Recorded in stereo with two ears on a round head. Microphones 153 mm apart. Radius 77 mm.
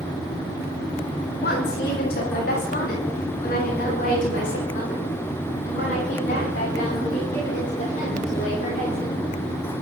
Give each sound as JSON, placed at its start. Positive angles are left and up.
{"t": 1.4, "sound": "a woman speaking", "side_deg": 65, "distance_m": 5.5}